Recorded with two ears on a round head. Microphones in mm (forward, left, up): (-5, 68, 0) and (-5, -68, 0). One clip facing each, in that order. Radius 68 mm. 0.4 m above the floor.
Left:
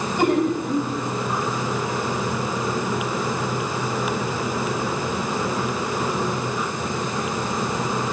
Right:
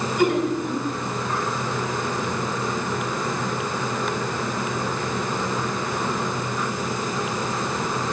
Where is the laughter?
30° left (ahead or behind), 2.5 m.